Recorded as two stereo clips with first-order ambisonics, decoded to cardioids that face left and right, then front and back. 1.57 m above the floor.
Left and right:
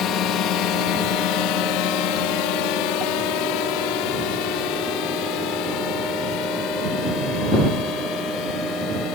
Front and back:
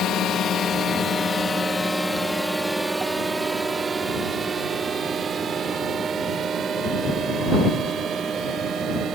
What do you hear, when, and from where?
0.0 s a drone: 50° left; by 9.2 s 125° left